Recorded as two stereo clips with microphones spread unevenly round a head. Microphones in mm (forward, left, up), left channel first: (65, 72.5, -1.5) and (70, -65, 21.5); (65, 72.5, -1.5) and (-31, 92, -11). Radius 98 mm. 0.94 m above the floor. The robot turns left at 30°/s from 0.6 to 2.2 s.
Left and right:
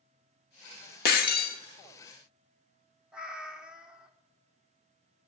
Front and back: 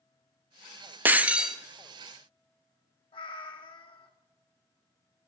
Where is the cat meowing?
10° right, 0.8 m.